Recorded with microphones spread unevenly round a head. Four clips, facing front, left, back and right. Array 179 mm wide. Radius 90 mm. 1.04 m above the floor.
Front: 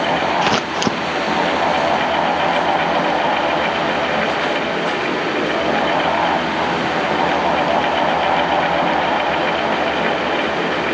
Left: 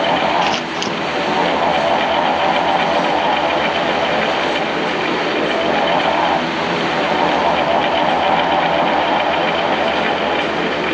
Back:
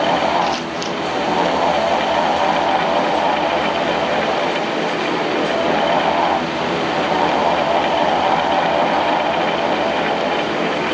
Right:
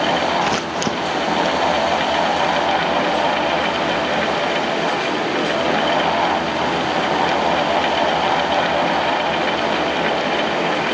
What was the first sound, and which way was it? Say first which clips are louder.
Scissors: left 1 dB, front 2 dB; 15° right.